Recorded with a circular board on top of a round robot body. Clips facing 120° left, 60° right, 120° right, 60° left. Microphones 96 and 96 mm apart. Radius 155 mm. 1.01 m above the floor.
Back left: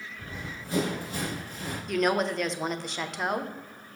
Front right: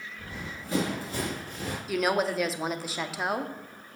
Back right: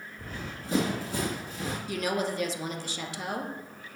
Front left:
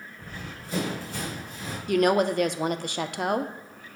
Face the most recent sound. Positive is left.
turn(degrees=25)